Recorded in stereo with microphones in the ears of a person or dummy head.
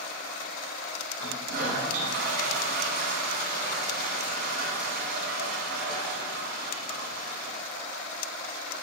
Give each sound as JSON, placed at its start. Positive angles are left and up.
{"t": 1.2, "sound": "a toilet flushing", "side_deg": -50, "distance_m": 1.5}